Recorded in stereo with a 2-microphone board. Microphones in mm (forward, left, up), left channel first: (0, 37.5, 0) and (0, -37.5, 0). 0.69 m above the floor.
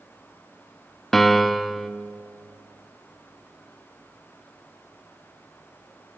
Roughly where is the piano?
Centre.